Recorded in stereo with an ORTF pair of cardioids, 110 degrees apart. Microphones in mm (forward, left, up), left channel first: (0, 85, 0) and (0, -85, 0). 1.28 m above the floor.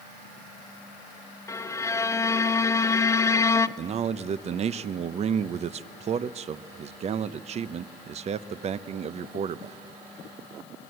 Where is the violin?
15° left, 0.6 m.